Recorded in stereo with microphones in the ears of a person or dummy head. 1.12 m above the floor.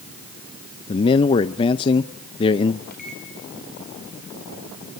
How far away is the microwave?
About 4 m.